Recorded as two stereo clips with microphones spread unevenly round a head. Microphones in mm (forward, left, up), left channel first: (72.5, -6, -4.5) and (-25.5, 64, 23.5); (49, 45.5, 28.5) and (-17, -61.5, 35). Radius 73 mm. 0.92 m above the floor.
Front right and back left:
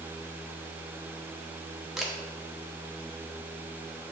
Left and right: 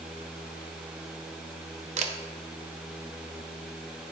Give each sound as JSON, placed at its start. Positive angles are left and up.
{"t": 2.0, "sound": "a camera shutter", "azimuth_deg": -120, "distance_m": 0.7}